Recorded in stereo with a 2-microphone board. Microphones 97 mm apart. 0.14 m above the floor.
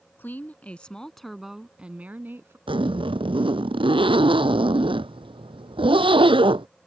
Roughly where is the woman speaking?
Left.